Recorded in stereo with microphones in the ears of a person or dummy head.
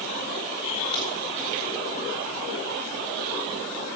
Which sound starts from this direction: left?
A crack, at 0.9 s.